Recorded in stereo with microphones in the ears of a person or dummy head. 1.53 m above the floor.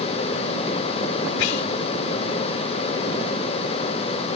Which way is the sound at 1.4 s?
85° left.